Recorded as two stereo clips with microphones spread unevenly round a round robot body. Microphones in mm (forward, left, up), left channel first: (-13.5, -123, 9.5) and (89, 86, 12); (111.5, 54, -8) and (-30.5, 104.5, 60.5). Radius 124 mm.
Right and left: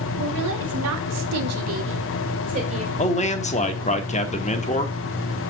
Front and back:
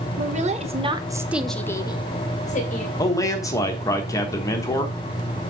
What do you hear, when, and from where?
0.2 s a woman speaking: 115° left, 2 m; by 2.9 s straight ahead, 2.5 m
3.0 s a man speaking: 60° right, 1.2 m